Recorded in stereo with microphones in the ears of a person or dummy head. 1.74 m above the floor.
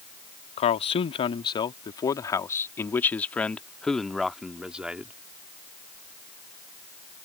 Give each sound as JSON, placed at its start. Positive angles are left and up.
{"t": 0.6, "sound": "a man speaking", "side_deg": 30}